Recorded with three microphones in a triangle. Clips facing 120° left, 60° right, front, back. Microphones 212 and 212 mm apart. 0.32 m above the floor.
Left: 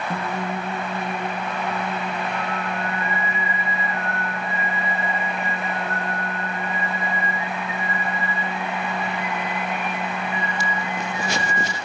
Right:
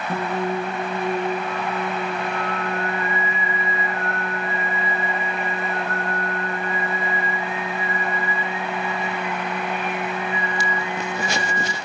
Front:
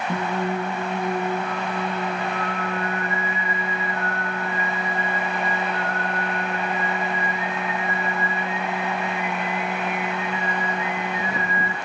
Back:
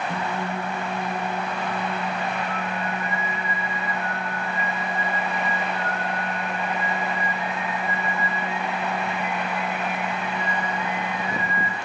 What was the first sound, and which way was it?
Singing, straight ahead.